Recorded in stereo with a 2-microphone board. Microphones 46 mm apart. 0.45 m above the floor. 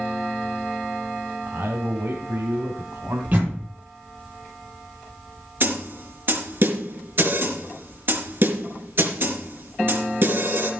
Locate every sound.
1.5 s a man speaking: 70° right (ahead or behind), 2 m; by 3.2 s 65° right (ahead or behind), 3 m
3.3 s a door slam: 35° right (ahead or behind), 10 m
5.6 s a snare drum: 55° right (ahead or behind), 3.5 m